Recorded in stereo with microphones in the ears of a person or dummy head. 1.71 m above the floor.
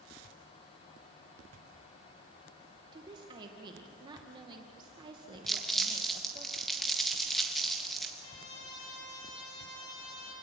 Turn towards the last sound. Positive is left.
turn(degrees=70)  # may be behind; listen again after turning